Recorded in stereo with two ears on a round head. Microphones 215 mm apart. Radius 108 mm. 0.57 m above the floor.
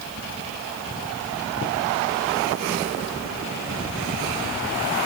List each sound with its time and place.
Only background noise.